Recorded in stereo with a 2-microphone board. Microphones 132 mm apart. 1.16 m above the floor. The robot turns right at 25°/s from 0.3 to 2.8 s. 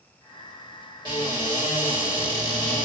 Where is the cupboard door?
40° right, 2.0 m; by 2.9 s 5° left, 2.0 m.